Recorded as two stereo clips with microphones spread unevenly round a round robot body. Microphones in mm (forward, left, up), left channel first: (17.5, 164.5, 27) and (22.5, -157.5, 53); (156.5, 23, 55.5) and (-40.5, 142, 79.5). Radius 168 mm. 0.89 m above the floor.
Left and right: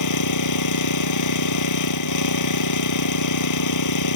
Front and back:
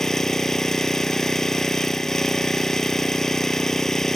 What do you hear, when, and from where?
0.0 s an engine running: 55° left